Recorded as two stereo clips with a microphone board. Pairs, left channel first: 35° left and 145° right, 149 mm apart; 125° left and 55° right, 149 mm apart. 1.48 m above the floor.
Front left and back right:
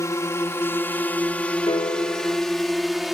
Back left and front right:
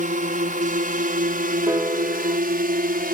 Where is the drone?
35° right; by 3.1 s 55° right.